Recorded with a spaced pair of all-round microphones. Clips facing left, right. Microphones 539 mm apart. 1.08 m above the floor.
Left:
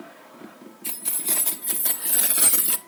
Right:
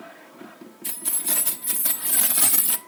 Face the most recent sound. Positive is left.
turn(degrees=-10)  # may be behind; listen again after turning